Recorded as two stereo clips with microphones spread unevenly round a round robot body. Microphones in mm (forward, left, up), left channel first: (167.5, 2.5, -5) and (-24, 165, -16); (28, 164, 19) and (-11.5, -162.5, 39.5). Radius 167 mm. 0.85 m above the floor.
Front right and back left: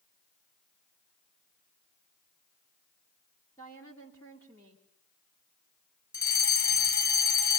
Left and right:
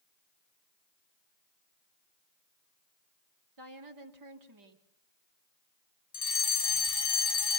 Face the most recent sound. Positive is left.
turn(degrees=10)